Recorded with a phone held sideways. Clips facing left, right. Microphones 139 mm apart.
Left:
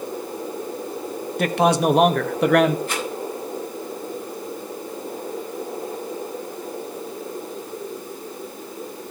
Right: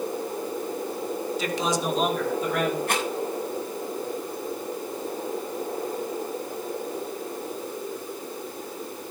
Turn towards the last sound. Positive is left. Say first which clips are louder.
# right 1 dB
turn(degrees=-60)  # may be behind; listen again after turning